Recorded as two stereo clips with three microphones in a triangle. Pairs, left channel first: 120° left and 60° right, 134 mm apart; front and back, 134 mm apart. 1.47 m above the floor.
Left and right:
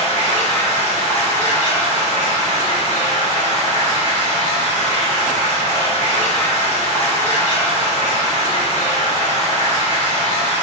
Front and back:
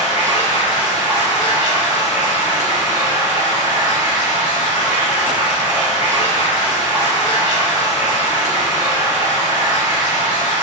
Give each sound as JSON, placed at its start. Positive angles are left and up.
{"t": 0.0, "sound": "running water", "azimuth_deg": 100, "distance_m": 1.0}